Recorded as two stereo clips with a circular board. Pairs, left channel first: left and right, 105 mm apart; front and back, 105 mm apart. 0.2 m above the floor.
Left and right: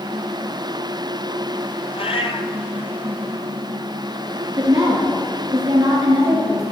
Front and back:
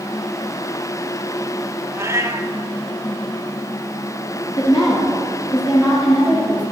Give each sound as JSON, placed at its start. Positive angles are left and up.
{"t": 1.9, "sound": "a cat meowing", "azimuth_deg": 115, "distance_m": 1.3}
{"t": 4.6, "sound": "a woman speaking", "azimuth_deg": -30, "distance_m": 3.0}